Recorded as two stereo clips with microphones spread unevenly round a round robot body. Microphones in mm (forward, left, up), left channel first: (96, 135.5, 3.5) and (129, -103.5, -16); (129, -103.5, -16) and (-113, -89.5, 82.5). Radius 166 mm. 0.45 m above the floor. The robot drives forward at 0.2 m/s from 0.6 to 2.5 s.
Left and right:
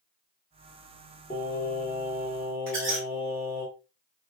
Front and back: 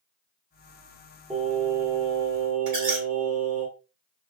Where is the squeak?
175° right, 1.8 m.